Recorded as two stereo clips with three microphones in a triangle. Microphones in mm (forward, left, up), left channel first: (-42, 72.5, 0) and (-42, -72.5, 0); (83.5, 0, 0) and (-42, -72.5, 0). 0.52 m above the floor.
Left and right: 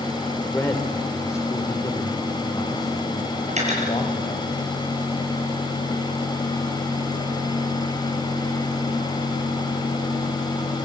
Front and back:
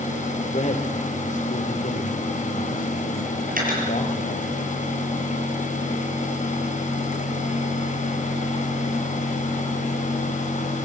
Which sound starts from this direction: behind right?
Cutlery clinking, at 3.5 s.